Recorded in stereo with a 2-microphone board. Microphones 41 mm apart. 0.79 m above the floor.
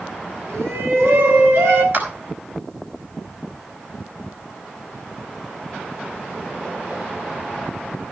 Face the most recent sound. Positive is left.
turn(degrees=-55)  # may be behind; listen again after turning